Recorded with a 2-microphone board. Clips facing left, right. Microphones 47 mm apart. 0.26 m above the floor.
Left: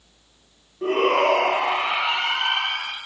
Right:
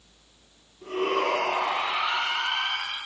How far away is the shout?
About 5.5 m.